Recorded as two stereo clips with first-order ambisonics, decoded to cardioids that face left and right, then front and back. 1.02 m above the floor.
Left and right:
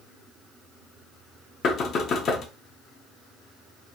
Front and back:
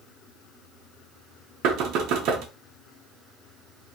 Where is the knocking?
145° left, 0.6 m.